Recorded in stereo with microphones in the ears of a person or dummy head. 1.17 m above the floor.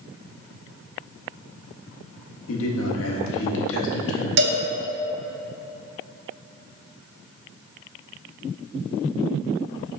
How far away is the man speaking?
About 1.4 m.